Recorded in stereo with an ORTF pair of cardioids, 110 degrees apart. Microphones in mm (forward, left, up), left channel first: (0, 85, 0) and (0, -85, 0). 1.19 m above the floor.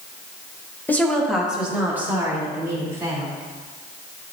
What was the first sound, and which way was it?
A woman speaking, 10° left.